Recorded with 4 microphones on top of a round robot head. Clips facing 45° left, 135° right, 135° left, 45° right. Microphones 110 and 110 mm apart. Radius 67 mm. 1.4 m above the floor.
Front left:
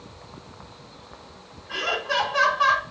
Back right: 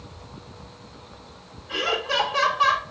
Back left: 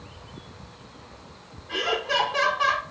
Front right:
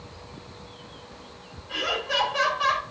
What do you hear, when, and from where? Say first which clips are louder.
1.7 s laughter: back right 1 dB, back left 3 dB; 160° left, 5 m